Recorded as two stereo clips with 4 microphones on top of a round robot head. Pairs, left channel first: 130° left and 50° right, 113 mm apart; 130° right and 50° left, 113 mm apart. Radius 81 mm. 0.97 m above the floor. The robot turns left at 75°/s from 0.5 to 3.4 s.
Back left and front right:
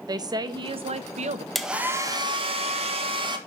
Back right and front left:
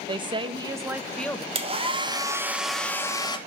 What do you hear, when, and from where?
0.1 s a woman speaking: 5° left, 1.0 m; by 1.4 s 65° right, 1.0 m
1.6 s a hair dryer: 45° left, 1.4 m; by 3.4 s 90° right, 1.4 m